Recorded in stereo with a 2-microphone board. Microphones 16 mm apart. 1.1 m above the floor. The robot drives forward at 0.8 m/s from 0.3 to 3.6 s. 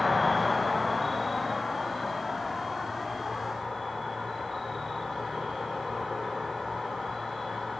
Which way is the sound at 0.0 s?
Centre (ahead or behind).